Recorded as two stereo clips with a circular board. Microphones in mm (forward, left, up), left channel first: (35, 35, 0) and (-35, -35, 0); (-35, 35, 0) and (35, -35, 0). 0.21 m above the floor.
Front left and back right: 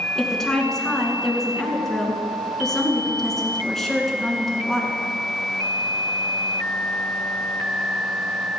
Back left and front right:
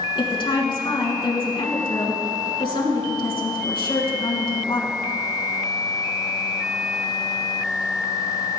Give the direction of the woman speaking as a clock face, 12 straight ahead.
8 o'clock.